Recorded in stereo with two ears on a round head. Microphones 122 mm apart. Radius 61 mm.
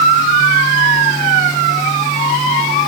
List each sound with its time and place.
Only background noise.